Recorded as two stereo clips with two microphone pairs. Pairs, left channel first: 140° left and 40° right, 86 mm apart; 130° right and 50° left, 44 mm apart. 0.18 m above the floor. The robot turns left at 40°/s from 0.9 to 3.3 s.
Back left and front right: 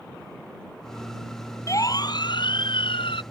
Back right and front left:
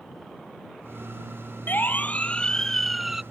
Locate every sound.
1.7 s a siren: 170° right; by 3.2 s 135° left